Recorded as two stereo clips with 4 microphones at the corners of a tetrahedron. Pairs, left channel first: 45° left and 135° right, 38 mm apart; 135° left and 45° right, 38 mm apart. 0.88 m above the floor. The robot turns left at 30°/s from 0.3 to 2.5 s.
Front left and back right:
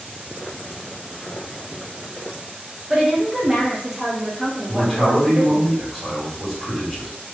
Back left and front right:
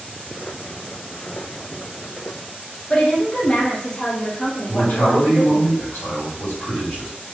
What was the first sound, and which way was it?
A woman speaking, 160° left.